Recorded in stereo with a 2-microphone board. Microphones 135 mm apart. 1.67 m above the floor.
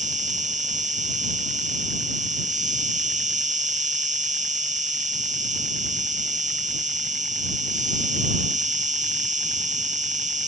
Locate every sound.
0.0 s an insect: 65° right (ahead or behind)